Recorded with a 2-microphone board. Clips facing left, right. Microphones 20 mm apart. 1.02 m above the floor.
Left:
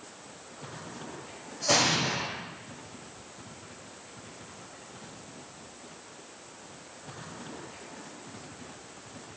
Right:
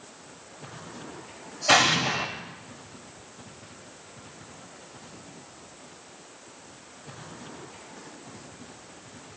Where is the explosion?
45° right (ahead or behind), 1.1 m.